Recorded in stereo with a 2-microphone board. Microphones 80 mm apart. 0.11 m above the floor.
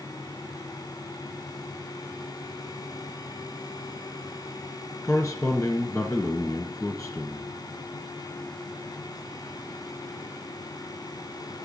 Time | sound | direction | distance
5.0 | a man speaking | 35° left (ahead or behind) | 1.4 m